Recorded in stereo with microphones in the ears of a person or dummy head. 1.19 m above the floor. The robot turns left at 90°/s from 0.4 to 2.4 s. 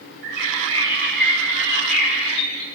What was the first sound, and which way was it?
A bird, 110° right.